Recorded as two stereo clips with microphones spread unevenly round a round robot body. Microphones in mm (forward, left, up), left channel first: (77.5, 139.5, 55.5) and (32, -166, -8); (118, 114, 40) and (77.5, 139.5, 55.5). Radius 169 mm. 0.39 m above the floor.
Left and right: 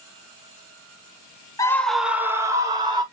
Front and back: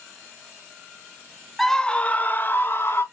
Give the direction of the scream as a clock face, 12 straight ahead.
12 o'clock.